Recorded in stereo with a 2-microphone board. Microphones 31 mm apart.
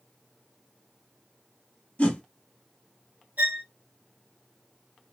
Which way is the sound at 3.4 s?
75° right (ahead or behind).